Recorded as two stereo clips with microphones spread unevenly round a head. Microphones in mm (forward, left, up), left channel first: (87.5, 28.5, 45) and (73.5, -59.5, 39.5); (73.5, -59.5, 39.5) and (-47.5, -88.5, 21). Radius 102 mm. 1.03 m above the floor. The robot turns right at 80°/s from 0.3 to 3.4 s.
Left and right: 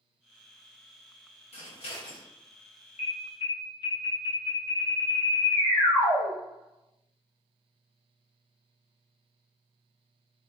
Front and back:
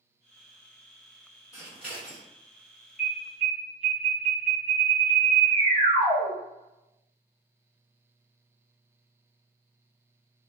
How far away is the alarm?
About 0.6 m.